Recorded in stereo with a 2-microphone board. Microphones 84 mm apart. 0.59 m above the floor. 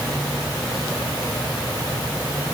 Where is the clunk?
I don't hear a clunk.